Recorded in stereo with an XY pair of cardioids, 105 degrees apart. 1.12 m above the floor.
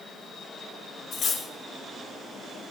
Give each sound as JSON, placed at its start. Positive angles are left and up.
{"t": 1.1, "sound": "cutlery clinking", "azimuth_deg": 60, "distance_m": 1.1}